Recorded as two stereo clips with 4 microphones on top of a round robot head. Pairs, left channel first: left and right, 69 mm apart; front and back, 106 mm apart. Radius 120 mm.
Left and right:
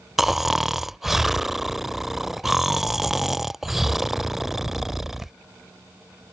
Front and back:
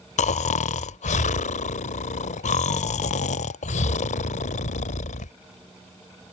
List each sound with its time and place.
0.2 s snoring: 5° right